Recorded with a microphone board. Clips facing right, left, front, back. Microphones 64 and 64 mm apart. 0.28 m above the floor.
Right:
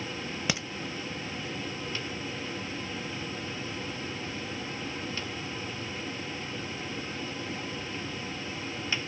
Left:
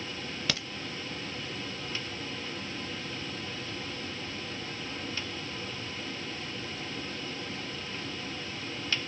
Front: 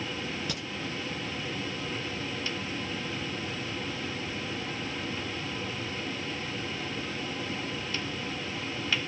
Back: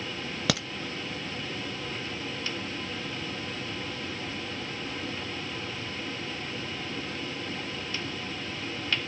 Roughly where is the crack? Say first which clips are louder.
Right 3 dB, back 7 dB; behind.